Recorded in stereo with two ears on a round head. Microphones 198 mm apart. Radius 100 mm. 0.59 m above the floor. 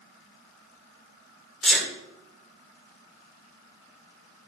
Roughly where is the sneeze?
Centre.